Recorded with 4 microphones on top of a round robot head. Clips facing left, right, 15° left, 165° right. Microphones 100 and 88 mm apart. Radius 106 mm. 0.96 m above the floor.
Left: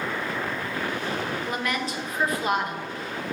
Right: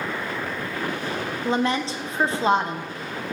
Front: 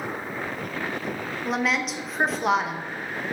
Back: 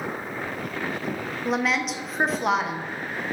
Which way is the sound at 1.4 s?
80° right.